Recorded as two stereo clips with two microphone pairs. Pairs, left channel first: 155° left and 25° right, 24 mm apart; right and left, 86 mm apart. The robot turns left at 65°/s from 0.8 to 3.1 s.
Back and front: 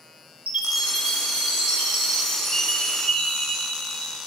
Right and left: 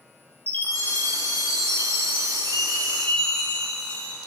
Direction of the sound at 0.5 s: 20° right.